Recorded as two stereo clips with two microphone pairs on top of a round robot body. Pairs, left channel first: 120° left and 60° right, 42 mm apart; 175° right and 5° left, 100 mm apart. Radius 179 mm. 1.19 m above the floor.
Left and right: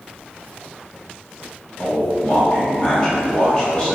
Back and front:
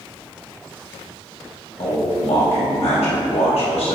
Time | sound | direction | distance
1.8 | a man speaking | 165° right | 2 m